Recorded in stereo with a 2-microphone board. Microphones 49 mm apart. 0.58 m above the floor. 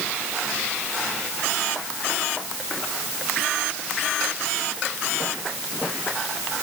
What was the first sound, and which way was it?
Only background noise.